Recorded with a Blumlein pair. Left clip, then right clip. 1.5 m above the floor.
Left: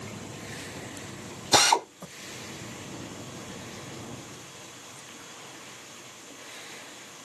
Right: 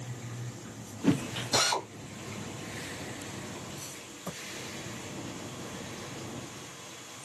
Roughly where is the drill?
Ahead left.